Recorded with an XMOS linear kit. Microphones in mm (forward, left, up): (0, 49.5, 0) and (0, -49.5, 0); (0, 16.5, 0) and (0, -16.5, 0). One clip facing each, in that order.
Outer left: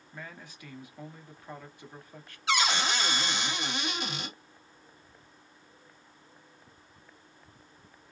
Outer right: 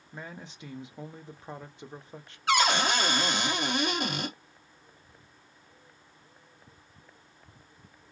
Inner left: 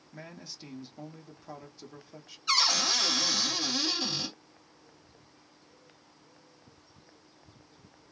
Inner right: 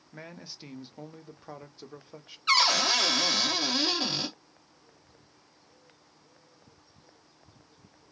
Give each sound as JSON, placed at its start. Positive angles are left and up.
{"t": 0.1, "sound": "a man speaking", "side_deg": -20, "distance_m": 0.6}
{"t": 2.5, "sound": "a cupboard door", "side_deg": -50, "distance_m": 0.9}